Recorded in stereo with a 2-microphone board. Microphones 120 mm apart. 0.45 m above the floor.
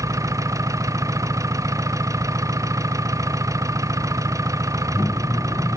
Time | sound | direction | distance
0.0 | an engine running | 25° right (ahead or behind) | ?